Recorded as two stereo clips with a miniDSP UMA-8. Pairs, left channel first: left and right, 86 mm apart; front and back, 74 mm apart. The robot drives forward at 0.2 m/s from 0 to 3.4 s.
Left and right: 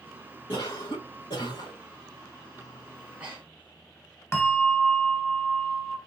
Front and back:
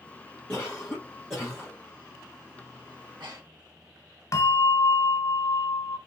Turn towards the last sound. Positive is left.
turn(degrees=40)